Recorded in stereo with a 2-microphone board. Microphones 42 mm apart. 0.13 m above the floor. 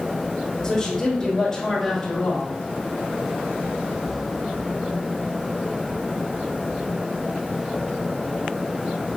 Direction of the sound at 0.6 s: 10° left (ahead or behind).